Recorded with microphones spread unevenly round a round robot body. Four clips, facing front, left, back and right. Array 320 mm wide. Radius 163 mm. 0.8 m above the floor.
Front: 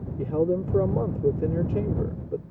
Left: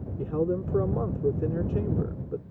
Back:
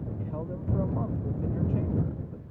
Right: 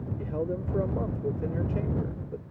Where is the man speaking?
25° left.